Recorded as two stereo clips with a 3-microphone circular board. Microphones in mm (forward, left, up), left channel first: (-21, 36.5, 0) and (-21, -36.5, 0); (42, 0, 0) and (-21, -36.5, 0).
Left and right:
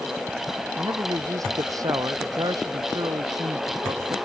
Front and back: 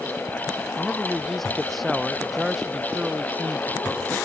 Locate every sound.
0.8 s a man speaking: 55° right; by 4.2 s 70° right